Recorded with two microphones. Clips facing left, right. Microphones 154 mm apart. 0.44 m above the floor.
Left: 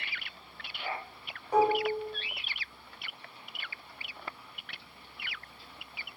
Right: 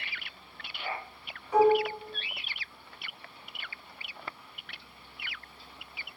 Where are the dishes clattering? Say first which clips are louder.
Right 3 dB; 35° left (ahead or behind), 0.9 m.